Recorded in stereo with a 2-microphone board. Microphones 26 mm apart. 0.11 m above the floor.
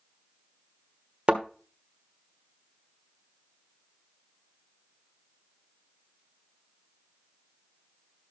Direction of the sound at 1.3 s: 35° right (ahead or behind).